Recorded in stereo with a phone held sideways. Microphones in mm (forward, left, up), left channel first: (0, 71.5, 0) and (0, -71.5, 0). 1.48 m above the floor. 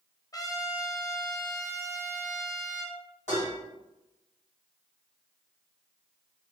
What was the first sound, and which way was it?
A trumpet, 25° left (ahead or behind).